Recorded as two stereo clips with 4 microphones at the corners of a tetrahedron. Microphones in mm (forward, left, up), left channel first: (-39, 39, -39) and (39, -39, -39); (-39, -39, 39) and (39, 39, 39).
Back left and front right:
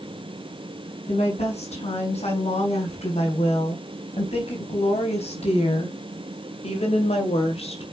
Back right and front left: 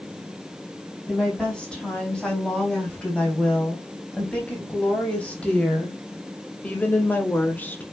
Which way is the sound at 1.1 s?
145° left.